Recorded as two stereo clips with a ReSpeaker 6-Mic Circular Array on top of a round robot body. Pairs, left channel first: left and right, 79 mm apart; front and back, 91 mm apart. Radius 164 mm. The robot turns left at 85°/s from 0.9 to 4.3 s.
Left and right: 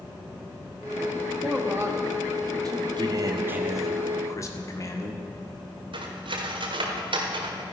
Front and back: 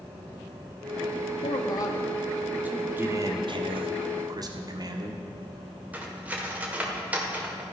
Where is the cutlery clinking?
105° right, 1.7 m.